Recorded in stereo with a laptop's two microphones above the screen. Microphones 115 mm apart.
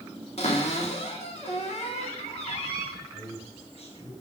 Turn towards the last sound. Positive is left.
turn(degrees=65)  # may be behind; listen again after turning